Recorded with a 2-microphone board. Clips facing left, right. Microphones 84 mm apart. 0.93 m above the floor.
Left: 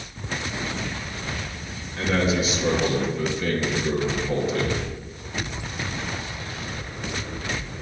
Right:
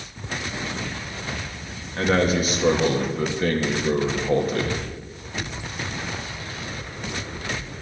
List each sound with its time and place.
2.0 s a man speaking: 50° right (ahead or behind), 1.7 m